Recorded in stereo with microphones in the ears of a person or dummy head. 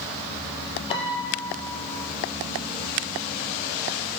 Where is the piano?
30° left (ahead or behind), 7 m.